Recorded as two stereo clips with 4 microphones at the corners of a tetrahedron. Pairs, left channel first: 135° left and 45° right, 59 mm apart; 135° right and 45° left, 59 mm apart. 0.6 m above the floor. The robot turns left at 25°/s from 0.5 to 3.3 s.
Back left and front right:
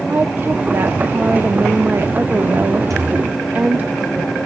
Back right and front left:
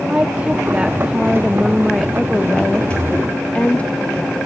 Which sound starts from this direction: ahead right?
A thud, at 2.9 s.